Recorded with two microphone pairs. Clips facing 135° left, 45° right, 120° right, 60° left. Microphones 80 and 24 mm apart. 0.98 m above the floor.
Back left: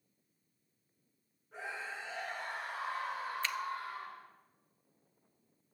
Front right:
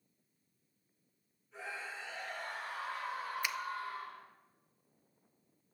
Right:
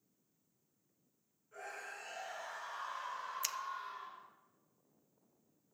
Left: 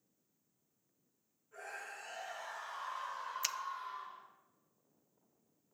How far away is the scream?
About 7 m.